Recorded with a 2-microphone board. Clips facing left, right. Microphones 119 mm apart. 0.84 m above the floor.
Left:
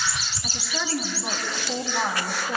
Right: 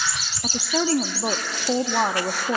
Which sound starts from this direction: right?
A woman speaking, at 0.4 s.